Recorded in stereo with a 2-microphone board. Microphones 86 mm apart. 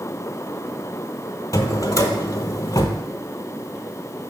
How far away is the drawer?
About 0.7 m.